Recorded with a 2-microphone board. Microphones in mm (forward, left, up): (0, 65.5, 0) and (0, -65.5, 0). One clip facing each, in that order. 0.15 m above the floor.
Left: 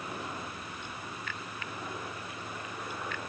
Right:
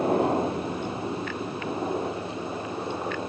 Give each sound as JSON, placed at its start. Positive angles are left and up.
{"t": 0.0, "sound": "a helicopter", "side_deg": -65}